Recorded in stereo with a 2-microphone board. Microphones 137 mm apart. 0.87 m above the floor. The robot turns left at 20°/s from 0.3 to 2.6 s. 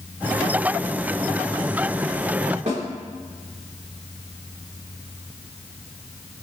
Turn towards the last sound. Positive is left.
turn(degrees=-60)  # may be behind; listen again after turning